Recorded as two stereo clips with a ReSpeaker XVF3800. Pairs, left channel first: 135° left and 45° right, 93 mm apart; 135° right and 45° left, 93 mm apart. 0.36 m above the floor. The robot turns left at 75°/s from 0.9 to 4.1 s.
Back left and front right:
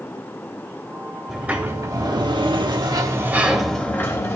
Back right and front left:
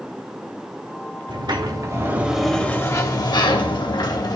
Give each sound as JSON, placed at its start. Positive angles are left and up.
{"t": 1.3, "sound": "a sliding door", "azimuth_deg": 40, "distance_m": 0.7}